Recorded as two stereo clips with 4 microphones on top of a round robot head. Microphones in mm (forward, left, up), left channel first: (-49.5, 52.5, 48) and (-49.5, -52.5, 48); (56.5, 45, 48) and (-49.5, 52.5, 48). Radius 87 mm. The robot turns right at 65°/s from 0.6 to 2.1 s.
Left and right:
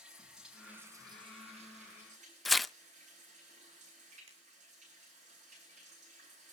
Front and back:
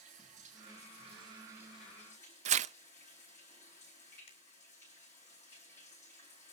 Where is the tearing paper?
Straight behind, 0.5 m.